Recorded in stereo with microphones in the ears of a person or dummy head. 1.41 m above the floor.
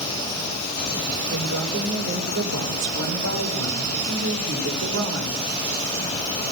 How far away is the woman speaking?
About 6.5 m.